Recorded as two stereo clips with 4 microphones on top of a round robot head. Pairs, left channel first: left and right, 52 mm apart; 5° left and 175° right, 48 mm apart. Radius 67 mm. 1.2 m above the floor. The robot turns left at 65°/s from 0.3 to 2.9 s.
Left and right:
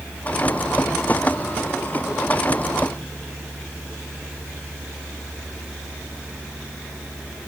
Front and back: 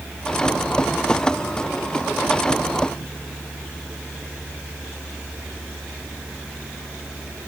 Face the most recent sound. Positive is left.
No sound to turn to.